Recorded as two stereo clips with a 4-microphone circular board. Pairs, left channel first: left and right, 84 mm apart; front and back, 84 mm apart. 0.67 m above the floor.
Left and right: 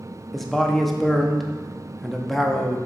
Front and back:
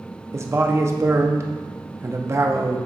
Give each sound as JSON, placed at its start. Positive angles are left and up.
{"t": 0.3, "sound": "a man speaking", "azimuth_deg": 175, "distance_m": 0.6}